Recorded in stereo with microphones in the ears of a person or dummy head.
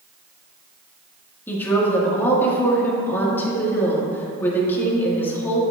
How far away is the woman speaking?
About 1.8 m.